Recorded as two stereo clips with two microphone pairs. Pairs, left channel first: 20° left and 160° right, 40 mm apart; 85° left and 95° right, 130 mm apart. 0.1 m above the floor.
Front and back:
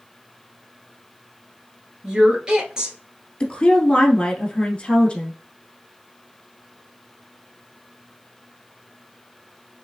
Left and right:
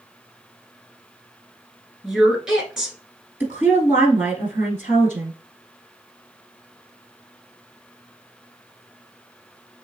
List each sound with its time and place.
2.0 s a woman speaking: straight behind, 1.1 m
3.4 s a woman speaking: 30° right, 1.6 m